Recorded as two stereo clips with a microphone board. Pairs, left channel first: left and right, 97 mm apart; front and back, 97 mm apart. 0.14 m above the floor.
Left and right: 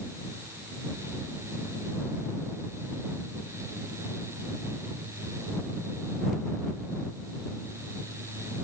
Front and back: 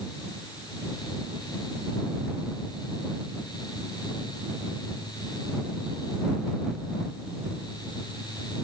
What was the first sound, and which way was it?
Only background noise.